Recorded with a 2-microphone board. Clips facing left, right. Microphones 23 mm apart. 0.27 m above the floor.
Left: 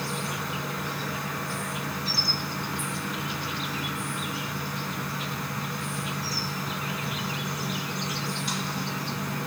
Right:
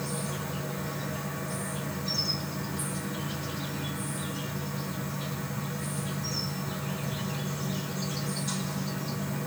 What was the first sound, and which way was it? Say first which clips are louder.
An insect: left 4 dB; 60° left (ahead or behind).